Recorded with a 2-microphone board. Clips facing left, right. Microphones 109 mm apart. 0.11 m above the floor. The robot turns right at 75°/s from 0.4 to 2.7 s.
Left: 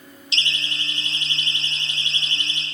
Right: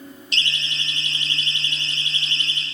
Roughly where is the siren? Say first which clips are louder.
Even; right.